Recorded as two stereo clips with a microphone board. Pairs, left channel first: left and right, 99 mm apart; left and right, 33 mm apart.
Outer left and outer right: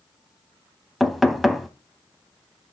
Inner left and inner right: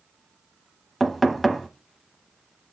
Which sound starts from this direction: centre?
Knocking, at 1.0 s.